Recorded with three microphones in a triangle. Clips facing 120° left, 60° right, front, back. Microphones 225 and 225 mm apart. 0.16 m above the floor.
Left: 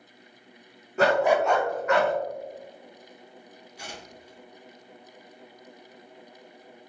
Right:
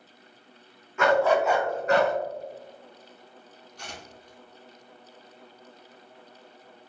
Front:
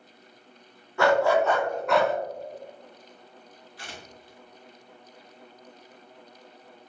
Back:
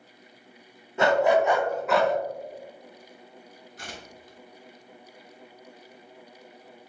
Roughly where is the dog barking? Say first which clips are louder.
Even, even; behind left.